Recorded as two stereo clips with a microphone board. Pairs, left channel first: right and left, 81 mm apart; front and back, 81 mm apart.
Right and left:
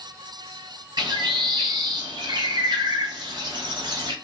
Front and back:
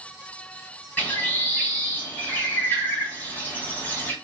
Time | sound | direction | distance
1.0 | a bird | 65° left | 1.4 m